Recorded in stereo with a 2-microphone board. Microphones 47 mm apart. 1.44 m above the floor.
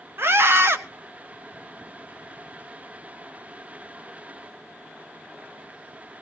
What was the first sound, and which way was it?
A scream, 65° right (ahead or behind).